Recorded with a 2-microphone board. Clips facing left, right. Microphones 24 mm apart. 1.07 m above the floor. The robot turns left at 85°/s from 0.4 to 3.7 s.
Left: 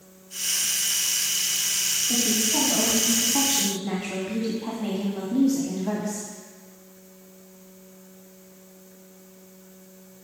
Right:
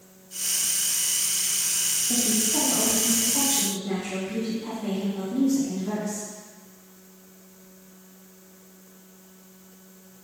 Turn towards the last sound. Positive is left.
turn(degrees=55)